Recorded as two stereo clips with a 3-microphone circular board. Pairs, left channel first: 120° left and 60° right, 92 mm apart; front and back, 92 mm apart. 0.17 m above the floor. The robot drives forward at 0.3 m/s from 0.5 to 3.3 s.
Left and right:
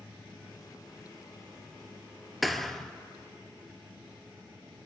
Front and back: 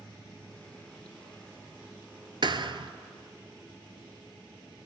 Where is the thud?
150° right, 0.7 m; by 2.9 s 155° right, 0.8 m.